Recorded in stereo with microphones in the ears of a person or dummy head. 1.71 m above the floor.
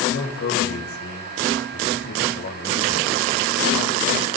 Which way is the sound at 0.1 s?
50° left (ahead or behind).